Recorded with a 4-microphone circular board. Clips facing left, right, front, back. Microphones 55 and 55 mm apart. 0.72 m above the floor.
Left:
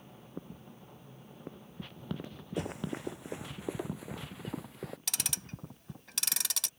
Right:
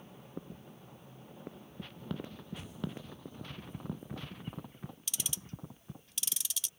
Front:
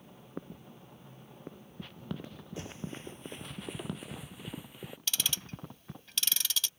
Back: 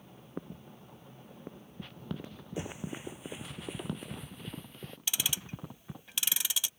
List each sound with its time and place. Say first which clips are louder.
2.6 s running footsteps: left 7 dB, back 3 dB; 110° left; by 5.0 s 80° left
5.1 s ticking: left 3 dB, even; 105° left